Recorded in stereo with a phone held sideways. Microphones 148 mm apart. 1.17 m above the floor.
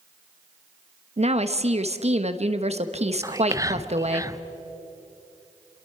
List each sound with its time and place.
1.2 s a woman speaking: 45° right (ahead or behind), 1.0 m
3.2 s whispering: 20° right (ahead or behind), 0.6 m